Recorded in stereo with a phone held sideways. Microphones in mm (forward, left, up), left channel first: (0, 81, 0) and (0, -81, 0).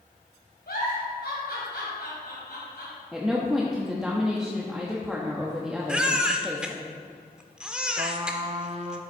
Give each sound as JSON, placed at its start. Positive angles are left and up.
{"t": 0.7, "sound": "a giggle", "side_deg": 80, "distance_m": 4.0}
{"t": 3.1, "sound": "a woman speaking", "side_deg": -5, "distance_m": 1.0}
{"t": 5.9, "sound": "a baby crying", "side_deg": -5, "distance_m": 0.7}
{"t": 8.0, "sound": "a trumpet", "side_deg": -40, "distance_m": 0.7}